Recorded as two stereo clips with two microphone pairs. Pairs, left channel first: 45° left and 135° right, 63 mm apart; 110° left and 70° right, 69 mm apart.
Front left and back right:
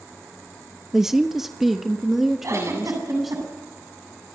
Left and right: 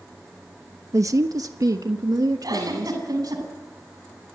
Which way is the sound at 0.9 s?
55° right.